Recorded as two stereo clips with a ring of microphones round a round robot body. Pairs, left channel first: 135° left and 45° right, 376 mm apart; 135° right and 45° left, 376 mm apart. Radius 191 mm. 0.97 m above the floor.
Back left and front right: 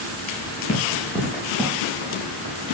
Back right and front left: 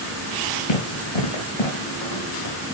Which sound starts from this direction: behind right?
Running footsteps, at 0.7 s.